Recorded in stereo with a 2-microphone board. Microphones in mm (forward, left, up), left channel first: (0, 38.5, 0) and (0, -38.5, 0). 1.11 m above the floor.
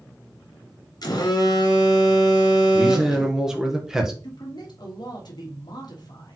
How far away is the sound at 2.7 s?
About 1.0 m.